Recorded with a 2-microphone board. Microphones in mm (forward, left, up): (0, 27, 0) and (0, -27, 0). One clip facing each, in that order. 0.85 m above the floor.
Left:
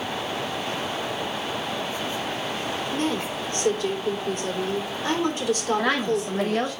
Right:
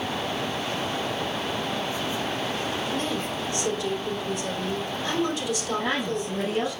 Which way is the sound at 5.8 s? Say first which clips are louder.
Left 4 dB; 85° left.